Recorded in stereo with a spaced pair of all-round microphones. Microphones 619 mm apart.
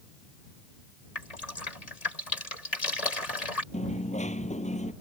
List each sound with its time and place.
1.1 s dripping: 70° left (ahead or behind)
3.7 s a dropped coin: 10° left (ahead or behind)